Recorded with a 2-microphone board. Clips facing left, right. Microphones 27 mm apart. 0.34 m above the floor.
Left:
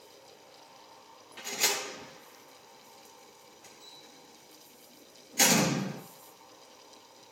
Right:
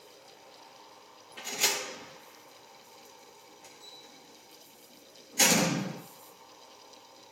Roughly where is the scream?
I don't hear a scream.